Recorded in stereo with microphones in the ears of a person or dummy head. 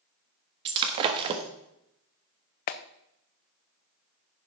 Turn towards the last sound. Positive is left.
turn(degrees=45)  # may be behind; listen again after turning